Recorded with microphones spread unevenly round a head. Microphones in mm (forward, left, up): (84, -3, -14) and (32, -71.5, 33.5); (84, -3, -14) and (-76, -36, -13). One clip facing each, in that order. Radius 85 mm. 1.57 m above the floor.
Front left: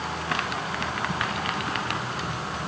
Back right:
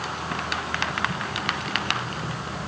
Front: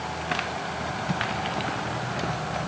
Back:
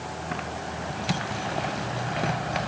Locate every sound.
Only background noise.